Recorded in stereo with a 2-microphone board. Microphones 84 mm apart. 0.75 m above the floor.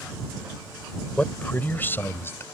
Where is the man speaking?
15° left (ahead or behind); by 2.4 s 30° left (ahead or behind).